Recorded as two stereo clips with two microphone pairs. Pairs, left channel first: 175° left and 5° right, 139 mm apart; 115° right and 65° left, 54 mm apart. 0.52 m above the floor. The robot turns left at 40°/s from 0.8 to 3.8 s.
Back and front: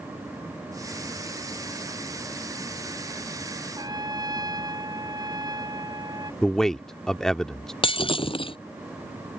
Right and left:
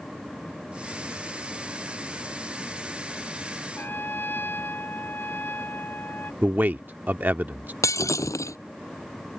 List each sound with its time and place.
3.8 s a trumpet: 60° right; by 6.3 s 65° right
6.4 s a man speaking: 90° left
7.8 s breaking glass: 130° right